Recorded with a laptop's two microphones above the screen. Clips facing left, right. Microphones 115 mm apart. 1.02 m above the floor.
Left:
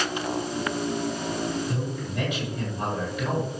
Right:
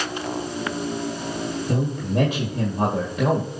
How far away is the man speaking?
About 2 m.